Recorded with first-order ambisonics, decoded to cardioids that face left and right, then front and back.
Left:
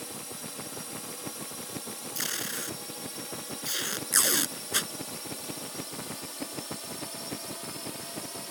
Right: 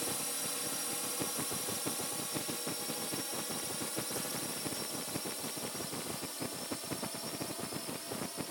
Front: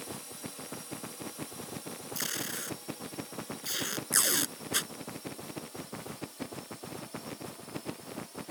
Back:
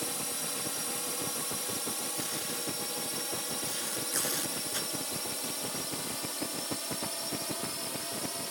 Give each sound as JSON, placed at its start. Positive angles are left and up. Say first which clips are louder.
{"t": 0.0, "sound": "a drone", "louder": "right 2 dB, back 7 dB", "azimuth_deg": -160}
{"t": 2.1, "sound": "tape being pulled", "louder": "left 6 dB, even", "azimuth_deg": 65}